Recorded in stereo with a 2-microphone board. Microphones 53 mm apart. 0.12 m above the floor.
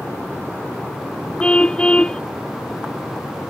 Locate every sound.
1.4 s a car horn: 15° left (ahead or behind)